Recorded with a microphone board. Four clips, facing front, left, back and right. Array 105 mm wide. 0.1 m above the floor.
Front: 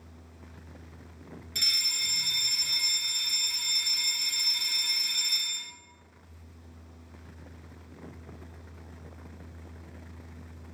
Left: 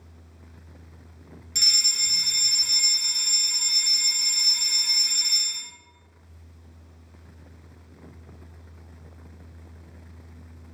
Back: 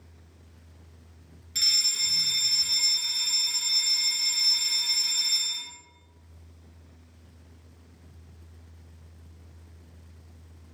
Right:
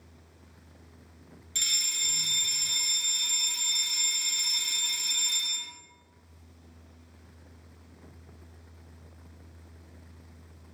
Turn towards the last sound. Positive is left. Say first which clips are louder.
# left 4 dB, back 2 dB
turn(degrees=95)